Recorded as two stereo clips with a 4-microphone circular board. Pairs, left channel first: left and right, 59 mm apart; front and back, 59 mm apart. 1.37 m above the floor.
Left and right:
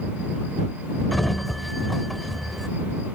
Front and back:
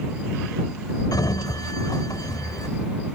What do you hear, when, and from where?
1.1 s a sliding door: straight ahead